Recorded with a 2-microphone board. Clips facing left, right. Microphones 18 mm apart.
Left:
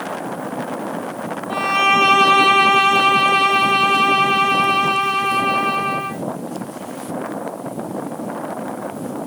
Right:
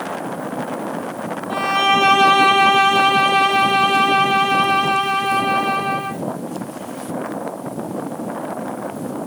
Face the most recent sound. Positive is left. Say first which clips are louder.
# left 1 dB
turn(degrees=5)  # may be behind; listen again after turning